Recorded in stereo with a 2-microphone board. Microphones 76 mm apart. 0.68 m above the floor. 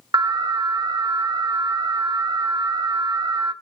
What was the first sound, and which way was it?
An alarm, 65° right (ahead or behind).